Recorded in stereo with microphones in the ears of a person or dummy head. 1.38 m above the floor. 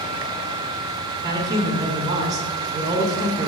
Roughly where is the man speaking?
Right.